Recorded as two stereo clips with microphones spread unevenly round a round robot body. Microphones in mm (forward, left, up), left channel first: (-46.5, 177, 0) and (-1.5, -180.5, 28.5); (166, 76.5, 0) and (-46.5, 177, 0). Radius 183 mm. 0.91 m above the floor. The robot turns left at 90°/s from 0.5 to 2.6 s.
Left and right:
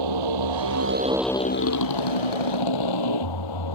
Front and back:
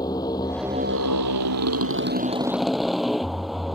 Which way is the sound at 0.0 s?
105° right.